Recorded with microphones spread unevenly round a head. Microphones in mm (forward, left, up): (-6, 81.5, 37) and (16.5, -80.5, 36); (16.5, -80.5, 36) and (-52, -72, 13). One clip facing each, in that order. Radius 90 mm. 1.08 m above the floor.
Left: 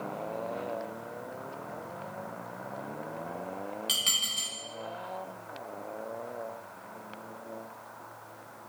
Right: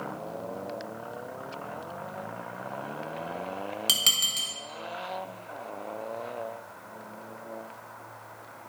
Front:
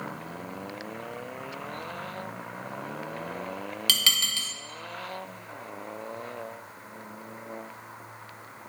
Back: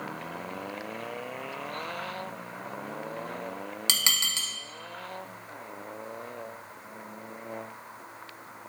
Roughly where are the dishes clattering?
Behind right.